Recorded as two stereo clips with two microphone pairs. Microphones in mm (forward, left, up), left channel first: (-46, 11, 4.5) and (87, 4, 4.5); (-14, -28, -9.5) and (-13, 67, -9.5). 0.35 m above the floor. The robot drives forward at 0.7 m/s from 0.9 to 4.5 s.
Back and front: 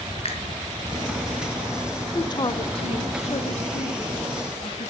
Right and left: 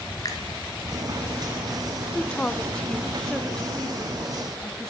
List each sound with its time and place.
0.2 s a finger snap: 145° right, 3.5 m
2.1 s a woman speaking: 155° right, 1.0 m; by 4.9 s 175° right, 2.5 m